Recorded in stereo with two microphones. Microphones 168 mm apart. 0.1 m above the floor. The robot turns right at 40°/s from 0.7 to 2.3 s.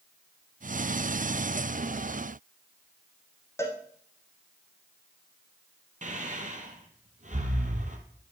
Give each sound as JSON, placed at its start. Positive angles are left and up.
{"t": 3.6, "sound": "a cowbell", "side_deg": 15, "distance_m": 1.5}
{"t": 6.0, "sound": "breathing", "side_deg": -50, "distance_m": 1.2}